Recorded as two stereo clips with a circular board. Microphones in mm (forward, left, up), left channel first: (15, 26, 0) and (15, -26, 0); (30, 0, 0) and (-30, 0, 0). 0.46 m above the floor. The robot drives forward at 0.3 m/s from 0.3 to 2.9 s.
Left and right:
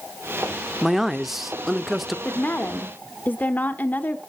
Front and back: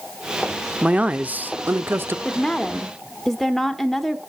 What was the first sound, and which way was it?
A man speaking, 165° right.